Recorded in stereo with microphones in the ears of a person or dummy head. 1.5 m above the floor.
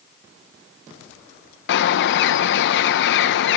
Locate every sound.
1.7 s a bird: 65° left (ahead or behind), 0.9 m